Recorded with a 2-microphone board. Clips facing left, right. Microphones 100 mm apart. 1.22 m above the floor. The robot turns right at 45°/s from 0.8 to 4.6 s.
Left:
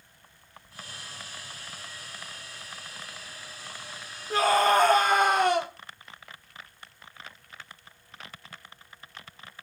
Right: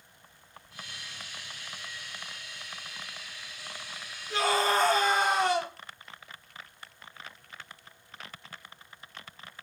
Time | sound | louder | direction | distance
4.3 | a scream | left 5 dB | 40° left (ahead or behind) | 3.5 m